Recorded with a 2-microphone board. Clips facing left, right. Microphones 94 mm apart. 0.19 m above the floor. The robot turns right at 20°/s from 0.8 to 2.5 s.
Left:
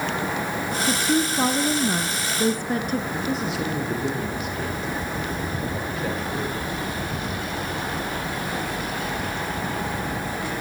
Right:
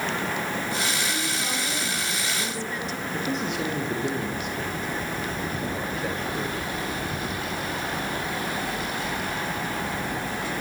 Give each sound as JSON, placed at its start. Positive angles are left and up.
{"t": 0.9, "sound": "a woman speaking", "azimuth_deg": 90, "distance_m": 2.0}
{"t": 3.1, "sound": "a man speaking", "side_deg": 0, "distance_m": 5.5}